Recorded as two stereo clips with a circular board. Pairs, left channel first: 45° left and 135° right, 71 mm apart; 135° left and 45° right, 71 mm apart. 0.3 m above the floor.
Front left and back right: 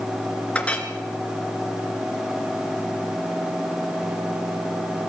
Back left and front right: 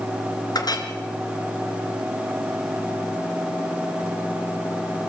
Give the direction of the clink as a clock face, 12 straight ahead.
8 o'clock.